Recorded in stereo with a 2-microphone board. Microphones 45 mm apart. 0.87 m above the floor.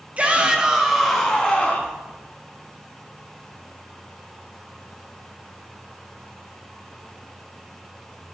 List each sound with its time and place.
0.2 s a shout: 30° right (ahead or behind), 1.0 m; by 2.0 s 30° left (ahead or behind), 1.0 m